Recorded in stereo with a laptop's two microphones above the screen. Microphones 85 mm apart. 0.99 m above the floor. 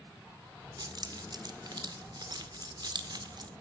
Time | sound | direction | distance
0.8 | keys jangling | 55° right (ahead or behind) | 1.8 m